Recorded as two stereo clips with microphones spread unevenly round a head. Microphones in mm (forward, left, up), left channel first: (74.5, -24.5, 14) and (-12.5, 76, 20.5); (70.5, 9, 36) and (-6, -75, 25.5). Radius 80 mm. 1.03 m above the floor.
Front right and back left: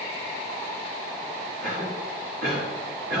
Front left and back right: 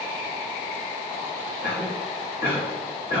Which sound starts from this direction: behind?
A cough, at 1.6 s.